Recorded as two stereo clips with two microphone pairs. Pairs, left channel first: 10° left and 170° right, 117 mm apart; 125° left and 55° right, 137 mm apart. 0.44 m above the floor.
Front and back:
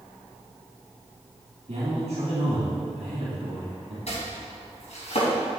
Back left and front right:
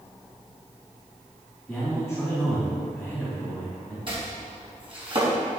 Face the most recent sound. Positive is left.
turn(degrees=-10)